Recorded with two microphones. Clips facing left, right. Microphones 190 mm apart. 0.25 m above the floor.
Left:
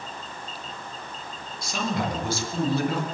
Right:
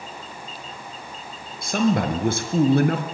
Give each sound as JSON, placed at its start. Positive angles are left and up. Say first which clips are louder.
{"t": 1.6, "sound": "a man speaking", "louder": "right 8 dB", "side_deg": -50, "distance_m": 4.0}